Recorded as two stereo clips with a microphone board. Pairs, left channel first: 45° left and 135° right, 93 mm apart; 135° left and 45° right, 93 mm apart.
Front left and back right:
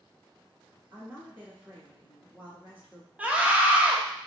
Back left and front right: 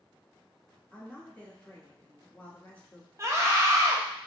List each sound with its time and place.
0.9 s a woman speaking: 170° right, 1.2 m
3.2 s a scream: 75° right, 0.7 m